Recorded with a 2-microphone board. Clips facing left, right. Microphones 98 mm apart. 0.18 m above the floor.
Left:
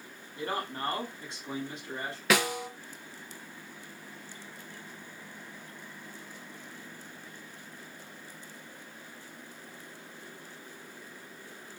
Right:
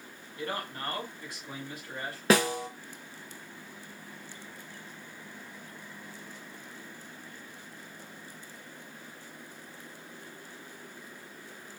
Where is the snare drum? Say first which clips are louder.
Right 3 dB; 35° right (ahead or behind), 0.5 m.